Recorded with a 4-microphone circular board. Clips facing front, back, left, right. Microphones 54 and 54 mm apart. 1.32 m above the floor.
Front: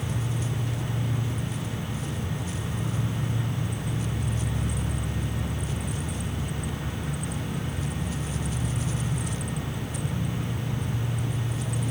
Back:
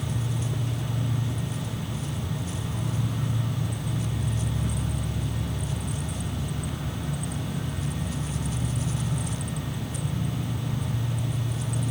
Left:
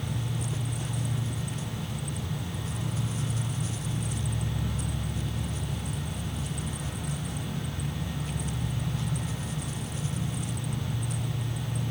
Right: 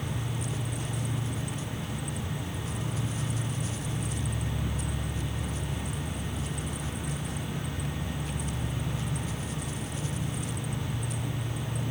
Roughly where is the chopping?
I don't hear chopping.